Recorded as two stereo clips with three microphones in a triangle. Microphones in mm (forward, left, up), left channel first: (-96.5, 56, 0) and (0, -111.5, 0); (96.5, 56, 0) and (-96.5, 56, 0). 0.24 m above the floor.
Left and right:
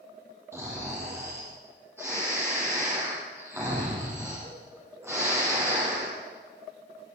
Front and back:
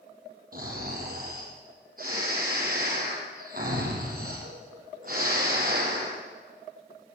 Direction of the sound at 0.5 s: 135° right.